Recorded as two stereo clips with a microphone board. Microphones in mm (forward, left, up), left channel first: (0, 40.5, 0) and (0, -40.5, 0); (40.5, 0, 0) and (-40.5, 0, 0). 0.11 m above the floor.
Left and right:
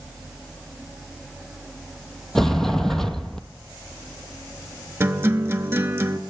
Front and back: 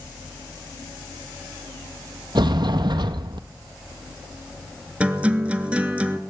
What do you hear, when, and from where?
2.4 s a sliding door: 175° left, 0.6 m
5.0 s a guitar: 120° right, 0.7 m